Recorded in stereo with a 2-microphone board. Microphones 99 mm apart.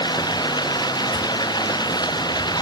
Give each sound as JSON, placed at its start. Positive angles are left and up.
{"t": 0.0, "sound": "running water", "side_deg": 40}